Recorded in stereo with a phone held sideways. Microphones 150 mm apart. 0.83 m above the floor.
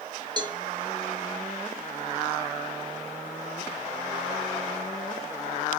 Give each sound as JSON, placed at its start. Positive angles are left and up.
{"t": 0.4, "sound": "a cowbell", "side_deg": -30, "distance_m": 0.9}